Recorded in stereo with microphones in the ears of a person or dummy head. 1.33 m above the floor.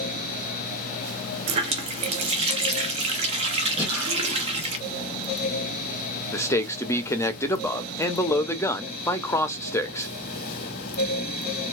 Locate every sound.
1.5 s a running tap: 35° right (ahead or behind), 0.6 m
3.8 s breathing: 10° right (ahead or behind), 1.7 m
6.3 s a man speaking: 15° left (ahead or behind), 0.6 m